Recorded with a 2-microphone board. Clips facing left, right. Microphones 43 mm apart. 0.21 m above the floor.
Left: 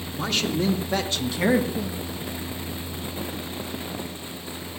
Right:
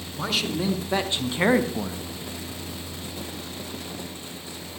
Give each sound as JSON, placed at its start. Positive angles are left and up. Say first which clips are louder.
{"t": 0.2, "sound": "a man speaking", "louder": "left 1 dB", "side_deg": 0, "distance_m": 2.5}